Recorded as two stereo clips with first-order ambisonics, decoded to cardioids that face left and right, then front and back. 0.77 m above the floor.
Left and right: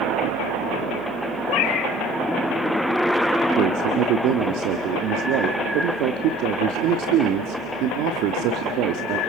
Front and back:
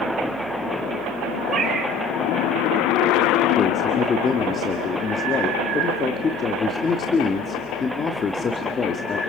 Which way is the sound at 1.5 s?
115° left.